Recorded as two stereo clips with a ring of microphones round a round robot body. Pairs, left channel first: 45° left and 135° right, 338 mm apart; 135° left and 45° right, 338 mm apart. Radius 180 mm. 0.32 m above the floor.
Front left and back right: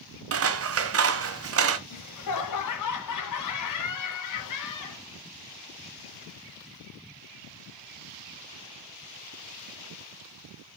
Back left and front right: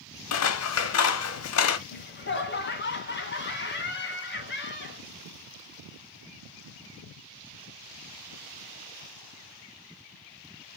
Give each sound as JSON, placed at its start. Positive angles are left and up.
{"t": 0.3, "sound": "scissors", "azimuth_deg": 180, "distance_m": 1.1}
{"t": 1.9, "sound": "laughter", "azimuth_deg": 75, "distance_m": 2.5}